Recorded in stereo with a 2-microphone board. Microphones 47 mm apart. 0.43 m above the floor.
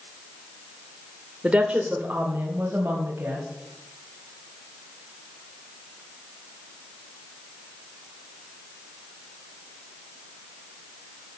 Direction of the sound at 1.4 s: 20° right (ahead or behind).